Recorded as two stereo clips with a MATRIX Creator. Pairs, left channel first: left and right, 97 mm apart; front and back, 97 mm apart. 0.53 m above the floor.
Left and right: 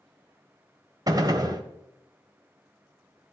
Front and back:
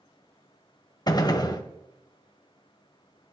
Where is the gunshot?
40° right, 1.1 m.